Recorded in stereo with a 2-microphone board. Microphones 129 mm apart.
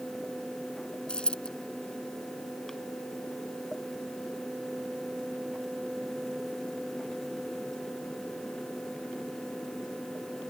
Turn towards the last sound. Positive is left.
turn(degrees=10)  # may be behind; listen again after turning